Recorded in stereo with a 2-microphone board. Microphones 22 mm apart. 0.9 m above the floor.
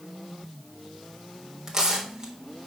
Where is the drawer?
I don't hear a drawer.